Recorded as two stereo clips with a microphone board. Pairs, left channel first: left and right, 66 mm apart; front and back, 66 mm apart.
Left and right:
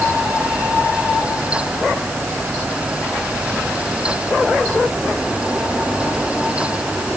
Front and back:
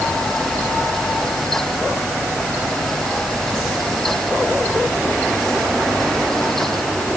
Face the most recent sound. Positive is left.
No sound to turn to.